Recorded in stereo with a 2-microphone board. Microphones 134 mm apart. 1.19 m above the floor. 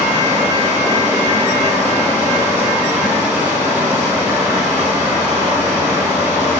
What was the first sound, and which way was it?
Running water, 20° right (ahead or behind).